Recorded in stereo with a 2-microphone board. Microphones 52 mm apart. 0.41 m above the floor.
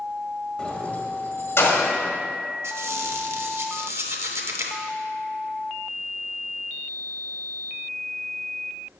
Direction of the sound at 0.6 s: 15° left (ahead or behind).